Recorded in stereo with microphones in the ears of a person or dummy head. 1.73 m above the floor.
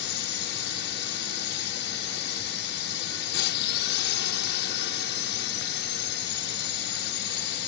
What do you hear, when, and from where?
0.0 s a drone: 60° left (ahead or behind)